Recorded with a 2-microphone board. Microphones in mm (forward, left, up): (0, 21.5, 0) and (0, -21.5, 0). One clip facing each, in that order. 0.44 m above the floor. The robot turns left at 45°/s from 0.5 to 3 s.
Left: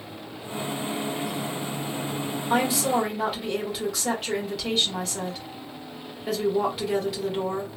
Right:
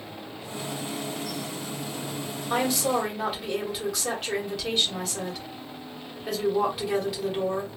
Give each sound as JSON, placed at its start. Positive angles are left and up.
{"t": 2.5, "sound": "a woman speaking", "side_deg": 10, "distance_m": 1.4}